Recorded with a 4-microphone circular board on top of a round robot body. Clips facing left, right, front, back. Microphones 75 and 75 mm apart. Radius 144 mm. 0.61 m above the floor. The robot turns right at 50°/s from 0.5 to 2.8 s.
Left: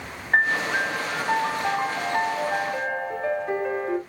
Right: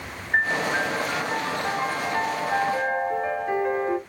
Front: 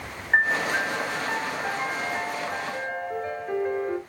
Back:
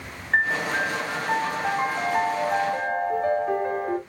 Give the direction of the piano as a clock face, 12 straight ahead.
10 o'clock.